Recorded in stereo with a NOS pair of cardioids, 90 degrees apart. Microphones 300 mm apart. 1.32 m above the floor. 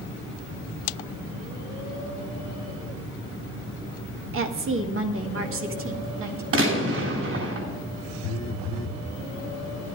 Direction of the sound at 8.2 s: 65° left.